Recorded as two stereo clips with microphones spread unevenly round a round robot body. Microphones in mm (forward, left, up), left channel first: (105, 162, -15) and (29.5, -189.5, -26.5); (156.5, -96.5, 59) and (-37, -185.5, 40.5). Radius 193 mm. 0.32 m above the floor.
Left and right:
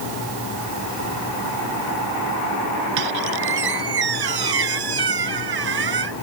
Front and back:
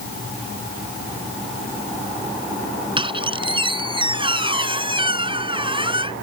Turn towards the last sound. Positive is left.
turn(degrees=-90)